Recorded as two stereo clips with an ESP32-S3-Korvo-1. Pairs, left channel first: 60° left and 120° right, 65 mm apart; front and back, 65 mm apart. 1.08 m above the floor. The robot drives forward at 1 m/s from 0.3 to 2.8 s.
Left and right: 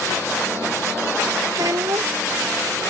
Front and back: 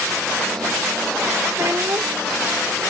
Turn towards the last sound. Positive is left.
turn(degrees=-150)